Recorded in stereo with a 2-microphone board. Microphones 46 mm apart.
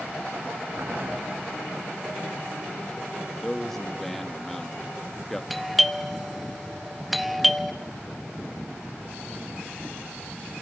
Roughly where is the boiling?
Right.